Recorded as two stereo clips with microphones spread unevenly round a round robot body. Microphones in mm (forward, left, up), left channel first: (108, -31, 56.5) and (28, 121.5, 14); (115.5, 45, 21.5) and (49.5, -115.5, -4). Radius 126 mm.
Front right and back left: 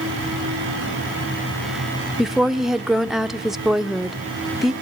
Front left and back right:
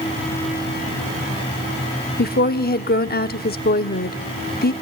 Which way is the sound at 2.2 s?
35° left.